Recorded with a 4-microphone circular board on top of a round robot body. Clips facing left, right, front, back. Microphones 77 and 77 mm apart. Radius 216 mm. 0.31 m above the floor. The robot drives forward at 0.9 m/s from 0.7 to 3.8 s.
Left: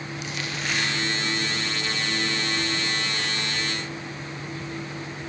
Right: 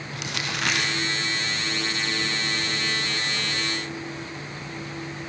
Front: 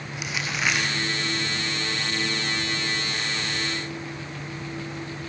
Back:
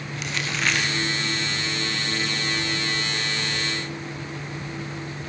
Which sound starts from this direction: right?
Crumpling, at 0.1 s.